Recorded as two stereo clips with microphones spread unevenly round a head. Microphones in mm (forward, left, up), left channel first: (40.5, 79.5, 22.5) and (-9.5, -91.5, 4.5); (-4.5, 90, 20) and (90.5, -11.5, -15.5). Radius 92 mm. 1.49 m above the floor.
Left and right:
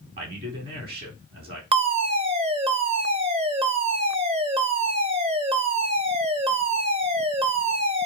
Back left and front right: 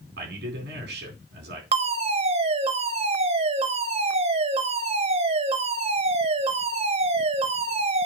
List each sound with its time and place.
0.2 s a man speaking: 70° right, 4 m
1.7 s a fire alarm: 60° right, 1.3 m